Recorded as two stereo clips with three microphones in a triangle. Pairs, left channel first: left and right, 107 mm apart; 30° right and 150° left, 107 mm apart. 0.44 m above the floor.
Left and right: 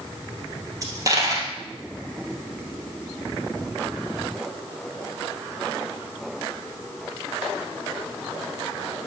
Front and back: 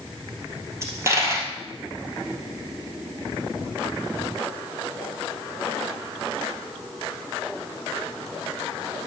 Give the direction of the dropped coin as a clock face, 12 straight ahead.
5 o'clock.